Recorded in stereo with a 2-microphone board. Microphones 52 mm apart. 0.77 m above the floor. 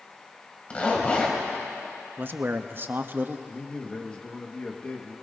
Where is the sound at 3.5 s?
25° left (ahead or behind), 1.2 m.